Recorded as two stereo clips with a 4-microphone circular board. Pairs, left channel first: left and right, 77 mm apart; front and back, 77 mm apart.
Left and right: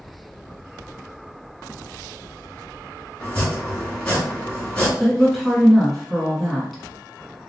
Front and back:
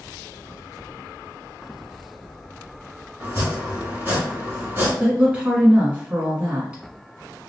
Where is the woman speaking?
170° left, 1.0 m.